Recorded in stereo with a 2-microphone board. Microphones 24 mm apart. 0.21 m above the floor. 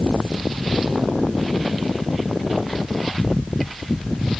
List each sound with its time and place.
Only background noise.